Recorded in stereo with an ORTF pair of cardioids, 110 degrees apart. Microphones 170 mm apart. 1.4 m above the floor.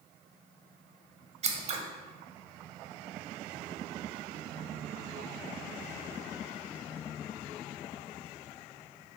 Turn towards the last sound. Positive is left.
turn(degrees=-40)